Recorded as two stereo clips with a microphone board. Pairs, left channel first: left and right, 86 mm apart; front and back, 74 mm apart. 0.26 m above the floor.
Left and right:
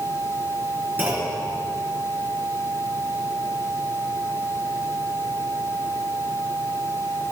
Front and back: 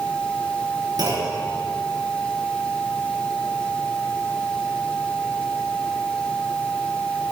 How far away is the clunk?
About 4 m.